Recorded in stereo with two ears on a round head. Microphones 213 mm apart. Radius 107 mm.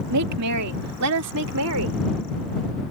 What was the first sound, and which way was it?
A woman speaking, 80° right.